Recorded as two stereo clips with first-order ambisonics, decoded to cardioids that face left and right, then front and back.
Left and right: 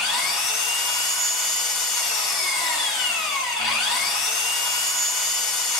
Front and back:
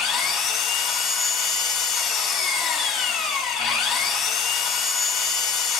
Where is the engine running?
50° left, 3.5 m.